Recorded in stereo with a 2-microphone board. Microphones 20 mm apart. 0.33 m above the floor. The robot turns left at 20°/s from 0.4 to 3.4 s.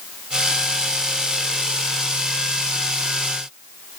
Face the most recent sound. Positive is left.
No sound to turn to.